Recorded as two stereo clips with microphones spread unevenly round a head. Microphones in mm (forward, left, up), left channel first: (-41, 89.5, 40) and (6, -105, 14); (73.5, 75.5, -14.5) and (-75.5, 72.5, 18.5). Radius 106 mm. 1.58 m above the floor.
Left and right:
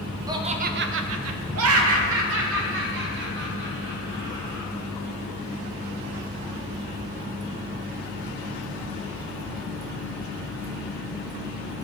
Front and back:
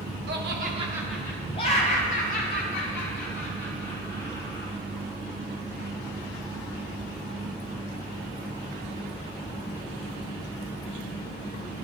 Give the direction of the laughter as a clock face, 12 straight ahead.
5 o'clock.